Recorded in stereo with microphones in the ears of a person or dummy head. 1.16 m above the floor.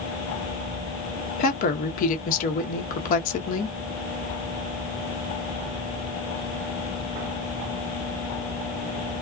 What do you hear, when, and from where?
1.4 s a woman speaking: 55° left (ahead or behind), 1.0 m